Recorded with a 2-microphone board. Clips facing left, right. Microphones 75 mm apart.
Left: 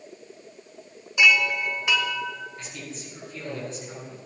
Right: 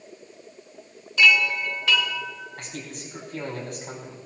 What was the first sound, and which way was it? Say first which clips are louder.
A chime: even; 20° left (ahead or behind).